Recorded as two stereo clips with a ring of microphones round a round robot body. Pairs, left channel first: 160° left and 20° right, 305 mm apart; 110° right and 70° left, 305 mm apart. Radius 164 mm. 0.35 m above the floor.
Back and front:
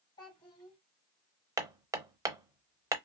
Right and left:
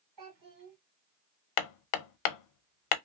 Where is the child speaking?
85° left, 2 m.